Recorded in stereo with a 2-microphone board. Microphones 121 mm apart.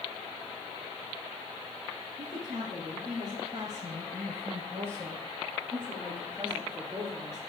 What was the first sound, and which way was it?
A woman speaking, 40° right (ahead or behind).